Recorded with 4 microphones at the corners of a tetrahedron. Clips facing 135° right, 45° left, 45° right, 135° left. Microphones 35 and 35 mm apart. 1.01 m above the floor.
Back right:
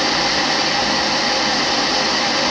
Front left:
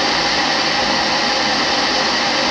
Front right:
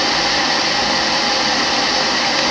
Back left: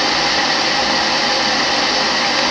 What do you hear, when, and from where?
Only background noise.